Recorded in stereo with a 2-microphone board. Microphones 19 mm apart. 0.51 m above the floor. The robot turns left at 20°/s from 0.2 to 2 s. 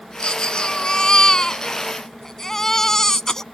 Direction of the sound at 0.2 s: 55° left.